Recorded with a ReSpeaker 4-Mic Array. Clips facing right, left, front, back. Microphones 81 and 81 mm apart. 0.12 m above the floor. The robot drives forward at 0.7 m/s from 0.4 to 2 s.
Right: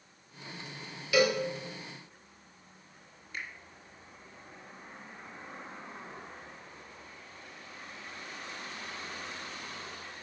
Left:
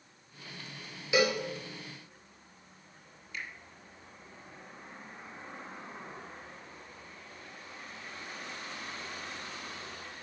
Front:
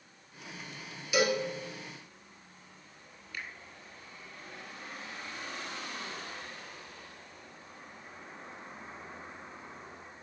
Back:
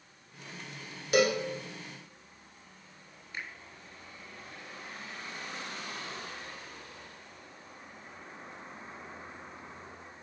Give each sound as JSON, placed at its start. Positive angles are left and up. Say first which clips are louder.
{"t": 1.1, "sound": "a cowbell", "louder": "right 2 dB, back 2 dB", "azimuth_deg": 155, "distance_m": 1.4}
{"t": 3.3, "sound": "a finger snap", "louder": "right 1 dB, back 1 dB", "azimuth_deg": -125, "distance_m": 1.6}